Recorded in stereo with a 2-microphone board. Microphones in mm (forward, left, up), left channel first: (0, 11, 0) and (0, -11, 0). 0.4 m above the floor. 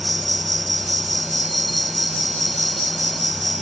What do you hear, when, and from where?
0.0 s an insect: 5° left (ahead or behind)